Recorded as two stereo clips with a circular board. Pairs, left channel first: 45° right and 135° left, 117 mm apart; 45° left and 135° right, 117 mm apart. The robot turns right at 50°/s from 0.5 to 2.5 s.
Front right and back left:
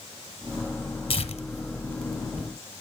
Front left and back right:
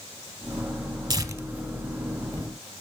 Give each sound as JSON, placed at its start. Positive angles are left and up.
{"t": 1.1, "sound": "tearing paper", "azimuth_deg": -80, "distance_m": 1.4}